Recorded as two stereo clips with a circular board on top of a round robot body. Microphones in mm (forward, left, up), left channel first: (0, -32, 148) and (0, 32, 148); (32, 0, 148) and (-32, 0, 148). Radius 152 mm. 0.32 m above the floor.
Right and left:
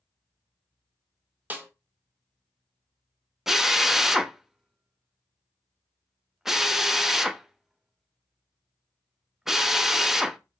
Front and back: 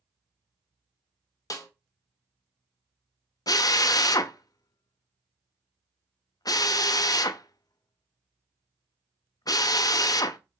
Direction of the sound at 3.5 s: 5° left.